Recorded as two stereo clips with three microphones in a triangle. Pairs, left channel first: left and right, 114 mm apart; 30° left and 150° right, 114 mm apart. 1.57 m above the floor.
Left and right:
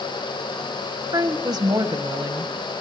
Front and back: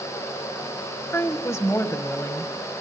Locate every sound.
1.1 s a woman speaking: 35° right, 1.6 m